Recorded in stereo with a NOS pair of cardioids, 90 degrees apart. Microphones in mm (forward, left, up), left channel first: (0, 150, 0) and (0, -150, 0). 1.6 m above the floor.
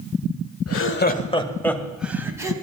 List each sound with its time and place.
0.7 s laughter: 55° left, 1.3 m; by 2.5 s 10° right, 3 m